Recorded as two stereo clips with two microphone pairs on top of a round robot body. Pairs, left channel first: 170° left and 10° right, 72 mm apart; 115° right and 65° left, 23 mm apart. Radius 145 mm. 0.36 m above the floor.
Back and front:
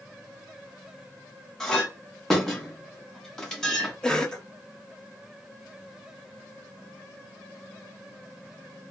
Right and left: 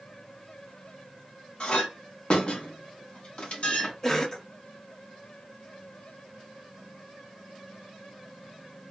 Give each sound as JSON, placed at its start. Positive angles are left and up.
{"t": 1.6, "sound": "a clink", "azimuth_deg": -110, "distance_m": 1.1}
{"t": 4.0, "sound": "a cough", "azimuth_deg": -130, "distance_m": 0.9}